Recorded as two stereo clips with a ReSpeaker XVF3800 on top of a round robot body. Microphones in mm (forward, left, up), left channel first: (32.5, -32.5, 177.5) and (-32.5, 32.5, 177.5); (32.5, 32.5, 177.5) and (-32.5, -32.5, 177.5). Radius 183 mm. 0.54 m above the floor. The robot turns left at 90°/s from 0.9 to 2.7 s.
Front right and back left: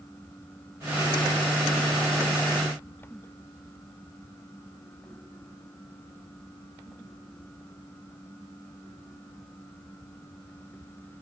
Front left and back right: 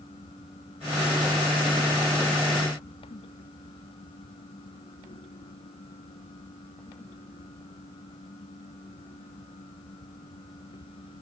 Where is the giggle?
No giggle in this recording.